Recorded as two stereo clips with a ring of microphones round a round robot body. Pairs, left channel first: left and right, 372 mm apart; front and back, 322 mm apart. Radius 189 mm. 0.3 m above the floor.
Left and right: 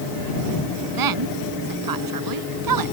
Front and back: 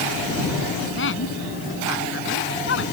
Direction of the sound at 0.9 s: 60° right.